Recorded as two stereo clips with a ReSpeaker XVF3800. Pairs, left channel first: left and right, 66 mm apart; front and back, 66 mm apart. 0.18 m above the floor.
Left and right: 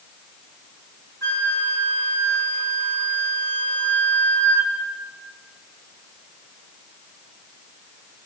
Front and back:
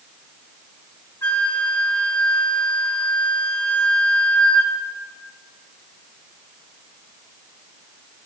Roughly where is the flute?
Ahead left.